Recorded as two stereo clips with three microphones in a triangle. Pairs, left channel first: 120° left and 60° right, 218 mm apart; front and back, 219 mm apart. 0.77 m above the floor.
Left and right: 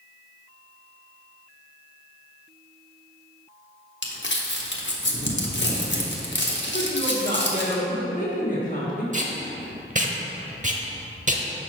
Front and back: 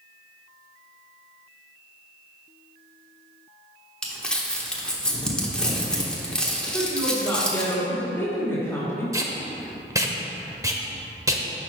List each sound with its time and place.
4.0 s crumpling: 85° left, 1.0 m
6.7 s a woman speaking: 75° left, 1.8 m
9.1 s tape being pulled: 105° right, 0.7 m